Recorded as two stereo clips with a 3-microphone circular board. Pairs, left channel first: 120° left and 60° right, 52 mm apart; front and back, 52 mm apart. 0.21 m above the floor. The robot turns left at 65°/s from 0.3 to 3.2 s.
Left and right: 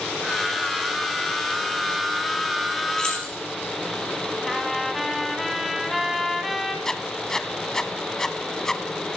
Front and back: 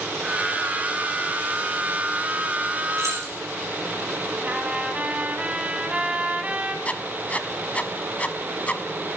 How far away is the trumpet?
About 1.6 m.